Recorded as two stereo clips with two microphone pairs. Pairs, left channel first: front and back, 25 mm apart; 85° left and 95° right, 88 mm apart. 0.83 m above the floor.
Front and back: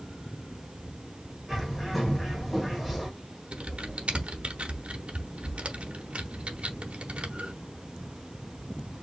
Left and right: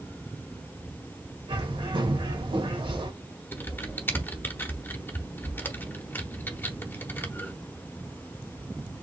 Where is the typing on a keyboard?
150° left, 0.9 m.